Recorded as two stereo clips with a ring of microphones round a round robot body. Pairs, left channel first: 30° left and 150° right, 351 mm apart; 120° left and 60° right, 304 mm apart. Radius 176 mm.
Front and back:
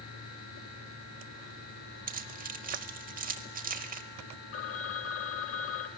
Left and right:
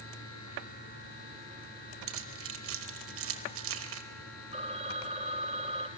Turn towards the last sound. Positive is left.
turn(degrees=0)